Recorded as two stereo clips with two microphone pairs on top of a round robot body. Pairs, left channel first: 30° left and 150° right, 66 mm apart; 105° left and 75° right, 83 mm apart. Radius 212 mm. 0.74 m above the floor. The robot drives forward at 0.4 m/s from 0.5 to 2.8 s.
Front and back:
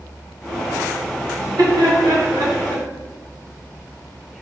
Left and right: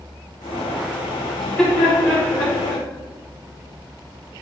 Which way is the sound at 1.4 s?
170° right.